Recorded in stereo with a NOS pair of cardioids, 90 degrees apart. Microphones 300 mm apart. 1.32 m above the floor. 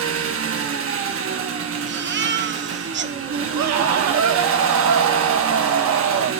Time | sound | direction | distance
0.0 | an engine running | 50° right | 1.3 m
1.9 | a baby crying | 40° right | 0.9 m
3.5 | a scream | 70° right | 1.8 m